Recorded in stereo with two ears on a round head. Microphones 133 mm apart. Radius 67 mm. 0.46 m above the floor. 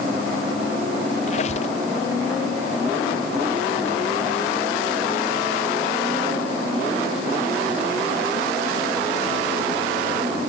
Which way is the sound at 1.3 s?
45° left (ahead or behind).